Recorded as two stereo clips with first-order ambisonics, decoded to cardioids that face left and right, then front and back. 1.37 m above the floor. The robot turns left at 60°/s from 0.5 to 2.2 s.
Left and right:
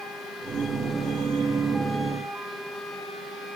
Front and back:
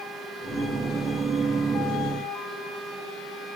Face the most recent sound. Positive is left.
No sound to turn to.